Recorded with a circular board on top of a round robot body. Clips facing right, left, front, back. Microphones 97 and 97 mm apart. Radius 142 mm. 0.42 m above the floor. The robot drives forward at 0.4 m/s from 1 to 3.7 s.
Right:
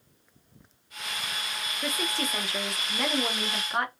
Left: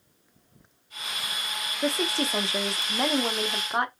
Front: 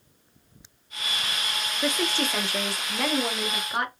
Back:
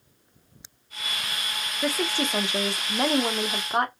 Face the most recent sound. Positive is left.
turn(degrees=150)